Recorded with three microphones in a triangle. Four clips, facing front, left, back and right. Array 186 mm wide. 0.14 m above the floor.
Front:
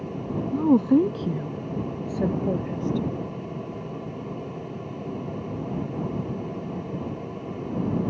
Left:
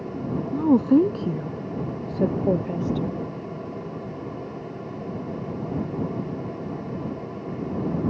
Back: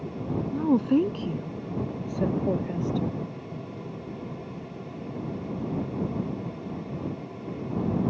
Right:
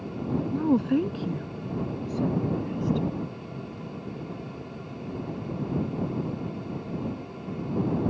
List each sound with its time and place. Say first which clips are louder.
0.5 s a woman speaking: left 7 dB, front 4 dB; 40° left; by 3.2 s 90° left